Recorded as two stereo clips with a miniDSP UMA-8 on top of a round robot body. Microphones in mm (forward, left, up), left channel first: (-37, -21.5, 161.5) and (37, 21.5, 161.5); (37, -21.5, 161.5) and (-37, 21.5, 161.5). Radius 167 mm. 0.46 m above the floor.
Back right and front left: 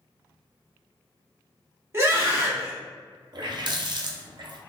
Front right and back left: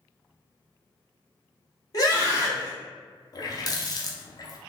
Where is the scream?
15° right, 1.7 m.